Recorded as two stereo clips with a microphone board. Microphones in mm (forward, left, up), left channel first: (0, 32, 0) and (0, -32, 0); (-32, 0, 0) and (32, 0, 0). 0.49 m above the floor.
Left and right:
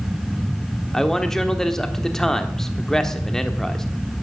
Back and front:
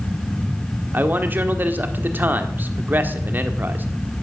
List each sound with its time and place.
0.9 s a man speaking: 15° left, 1.3 m